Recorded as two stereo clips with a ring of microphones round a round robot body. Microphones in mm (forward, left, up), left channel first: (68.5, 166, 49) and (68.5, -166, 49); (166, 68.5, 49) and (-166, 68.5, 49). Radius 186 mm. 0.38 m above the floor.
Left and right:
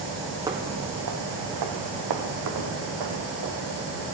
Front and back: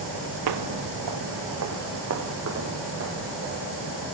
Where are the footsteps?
170° right, 0.5 m; by 3.6 s 120° right, 4 m.